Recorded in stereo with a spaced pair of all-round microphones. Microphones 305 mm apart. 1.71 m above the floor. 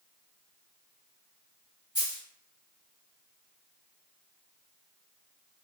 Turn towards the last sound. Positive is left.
turn(degrees=55)  # may be behind; listen again after turning